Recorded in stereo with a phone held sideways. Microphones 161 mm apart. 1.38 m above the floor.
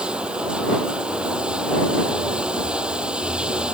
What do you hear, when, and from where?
0.0 s running water: 5° right (ahead or behind)